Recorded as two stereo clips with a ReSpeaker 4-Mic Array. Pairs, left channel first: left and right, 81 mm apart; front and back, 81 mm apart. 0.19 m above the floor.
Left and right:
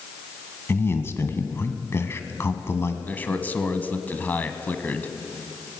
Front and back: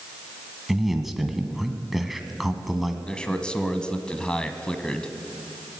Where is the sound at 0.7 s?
95° left, 1.5 m.